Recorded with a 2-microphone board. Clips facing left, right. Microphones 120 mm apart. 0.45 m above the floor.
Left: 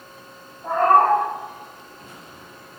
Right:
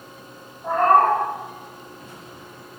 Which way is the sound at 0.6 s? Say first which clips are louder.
Even; 5° left (ahead or behind).